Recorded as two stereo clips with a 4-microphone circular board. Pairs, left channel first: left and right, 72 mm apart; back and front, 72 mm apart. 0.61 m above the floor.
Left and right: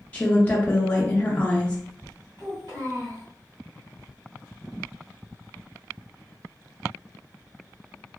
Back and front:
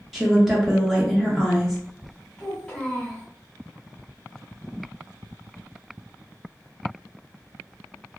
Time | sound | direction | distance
0.1 | a woman speaking | 80° left | 0.5 m
2.4 | a child speaking | 105° right | 1.5 m